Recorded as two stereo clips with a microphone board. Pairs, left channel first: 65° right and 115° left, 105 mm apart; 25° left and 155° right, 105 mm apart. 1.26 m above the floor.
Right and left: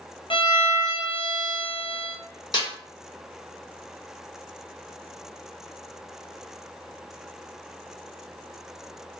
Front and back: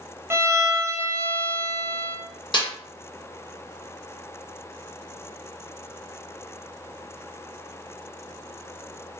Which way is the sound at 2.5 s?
20° right.